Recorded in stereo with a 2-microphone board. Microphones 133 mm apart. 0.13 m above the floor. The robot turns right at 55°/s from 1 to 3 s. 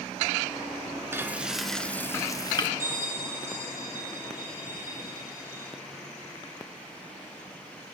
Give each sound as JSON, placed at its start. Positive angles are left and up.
{"t": 1.1, "sound": "frying", "azimuth_deg": -30, "distance_m": 1.0}
{"t": 2.8, "sound": "a bell", "side_deg": -80, "distance_m": 8.0}